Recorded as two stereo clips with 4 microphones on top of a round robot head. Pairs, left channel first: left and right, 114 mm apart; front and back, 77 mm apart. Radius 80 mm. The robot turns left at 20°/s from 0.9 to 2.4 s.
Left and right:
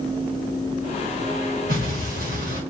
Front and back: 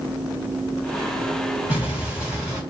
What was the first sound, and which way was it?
An explosion, 70° right.